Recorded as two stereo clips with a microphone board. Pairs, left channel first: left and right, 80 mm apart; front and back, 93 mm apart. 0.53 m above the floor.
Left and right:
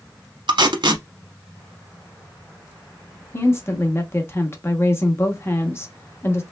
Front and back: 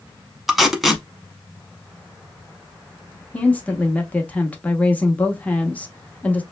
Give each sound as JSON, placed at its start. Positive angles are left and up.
{"t": 0.5, "sound": "tape being pulled", "azimuth_deg": -90, "distance_m": 0.8}
{"t": 3.3, "sound": "a woman speaking", "azimuth_deg": 65, "distance_m": 0.8}